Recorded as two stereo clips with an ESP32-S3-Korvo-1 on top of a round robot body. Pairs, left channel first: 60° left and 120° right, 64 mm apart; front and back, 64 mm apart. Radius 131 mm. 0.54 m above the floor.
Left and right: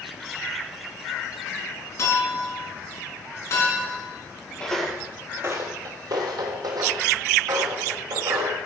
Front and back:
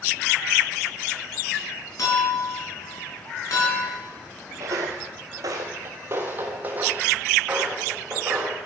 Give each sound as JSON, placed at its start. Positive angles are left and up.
{"t": 2.0, "sound": "a clink", "azimuth_deg": 25, "distance_m": 4.0}
{"t": 4.6, "sound": "footsteps", "azimuth_deg": 135, "distance_m": 0.7}